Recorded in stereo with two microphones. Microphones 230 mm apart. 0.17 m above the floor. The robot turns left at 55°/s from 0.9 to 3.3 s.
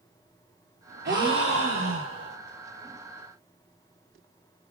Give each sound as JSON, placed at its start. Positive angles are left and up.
{"t": 1.1, "sound": "a gasp", "azimuth_deg": -50, "distance_m": 0.6}